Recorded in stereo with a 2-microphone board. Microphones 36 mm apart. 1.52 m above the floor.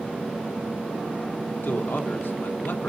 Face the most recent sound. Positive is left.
turn(degrees=75)  # may be behind; listen again after turning